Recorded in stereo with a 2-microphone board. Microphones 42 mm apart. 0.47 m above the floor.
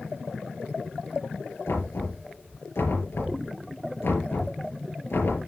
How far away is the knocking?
About 6 m.